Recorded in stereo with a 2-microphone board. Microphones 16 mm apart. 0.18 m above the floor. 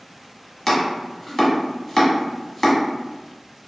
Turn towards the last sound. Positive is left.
turn(degrees=20)  # may be behind; listen again after turning